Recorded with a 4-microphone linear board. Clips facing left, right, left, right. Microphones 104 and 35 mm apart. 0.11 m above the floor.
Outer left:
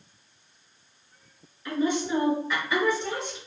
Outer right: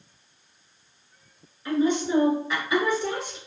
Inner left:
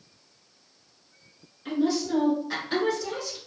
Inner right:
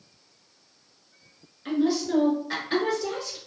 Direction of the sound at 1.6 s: 20° right (ahead or behind).